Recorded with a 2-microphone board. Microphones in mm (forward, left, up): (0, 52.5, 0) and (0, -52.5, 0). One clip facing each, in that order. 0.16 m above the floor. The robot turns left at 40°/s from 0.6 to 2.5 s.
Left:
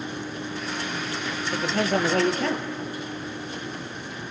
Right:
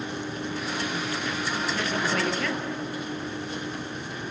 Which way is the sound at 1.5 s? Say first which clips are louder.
Left 8 dB; 70° left.